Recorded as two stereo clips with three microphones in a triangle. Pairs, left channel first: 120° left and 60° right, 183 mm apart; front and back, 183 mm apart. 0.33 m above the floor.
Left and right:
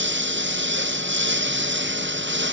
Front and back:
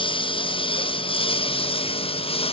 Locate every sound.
0.0 s a lawn mower: 60° right